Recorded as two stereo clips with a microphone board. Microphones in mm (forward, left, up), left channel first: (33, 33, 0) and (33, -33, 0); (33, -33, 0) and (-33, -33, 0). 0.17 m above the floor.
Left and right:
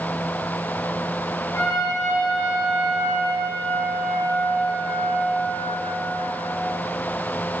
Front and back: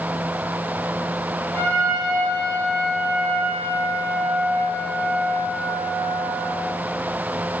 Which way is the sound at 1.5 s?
65° left.